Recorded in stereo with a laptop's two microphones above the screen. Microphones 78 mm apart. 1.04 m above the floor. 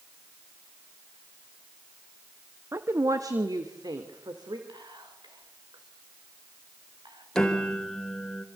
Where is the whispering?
75° right (ahead or behind), 5 m.